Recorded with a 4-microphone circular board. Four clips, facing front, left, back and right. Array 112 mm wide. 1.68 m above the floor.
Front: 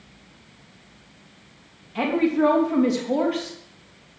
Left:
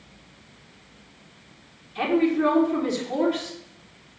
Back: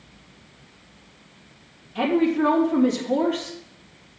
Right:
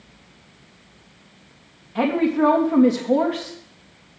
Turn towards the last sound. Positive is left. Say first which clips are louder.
# right 2 dB, even
turn(degrees=-75)